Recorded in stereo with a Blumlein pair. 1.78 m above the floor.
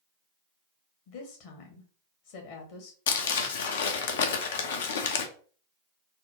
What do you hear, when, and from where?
1.1 s a woman speaking: 50° left, 1.3 m
3.1 s crumpling: 60° left, 0.6 m